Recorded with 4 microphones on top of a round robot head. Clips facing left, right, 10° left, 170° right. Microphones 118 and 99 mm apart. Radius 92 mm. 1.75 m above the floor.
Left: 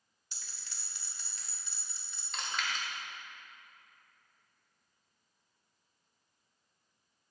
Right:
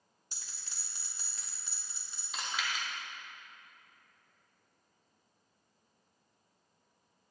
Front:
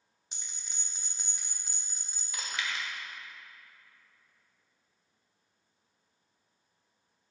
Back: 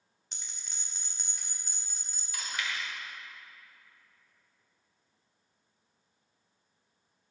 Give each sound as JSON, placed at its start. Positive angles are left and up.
{"t": 0.3, "sound": "a bell", "azimuth_deg": -60, "distance_m": 1.1}
{"t": 2.3, "sound": "chewing", "azimuth_deg": -5, "distance_m": 1.0}